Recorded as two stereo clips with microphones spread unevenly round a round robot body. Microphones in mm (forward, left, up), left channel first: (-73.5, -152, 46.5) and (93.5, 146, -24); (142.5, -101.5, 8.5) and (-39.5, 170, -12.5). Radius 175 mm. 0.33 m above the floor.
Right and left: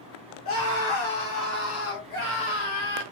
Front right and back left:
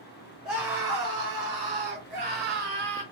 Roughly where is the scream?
Behind right.